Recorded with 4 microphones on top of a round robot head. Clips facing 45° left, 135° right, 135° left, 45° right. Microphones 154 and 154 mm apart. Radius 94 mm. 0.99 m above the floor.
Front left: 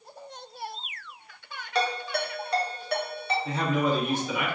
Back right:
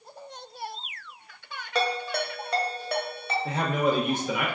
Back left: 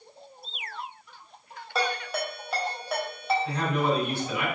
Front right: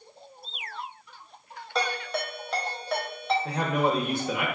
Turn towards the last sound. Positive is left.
turn(degrees=-90)